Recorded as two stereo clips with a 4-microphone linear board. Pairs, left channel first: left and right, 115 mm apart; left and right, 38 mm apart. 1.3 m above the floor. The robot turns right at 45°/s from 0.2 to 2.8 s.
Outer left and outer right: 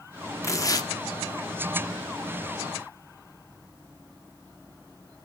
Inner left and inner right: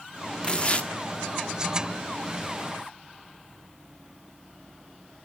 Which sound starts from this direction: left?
Tearing paper, at 0.4 s.